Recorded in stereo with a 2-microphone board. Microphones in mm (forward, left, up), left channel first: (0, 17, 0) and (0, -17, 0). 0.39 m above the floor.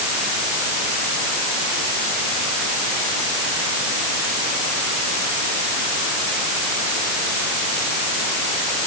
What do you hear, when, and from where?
Only background noise.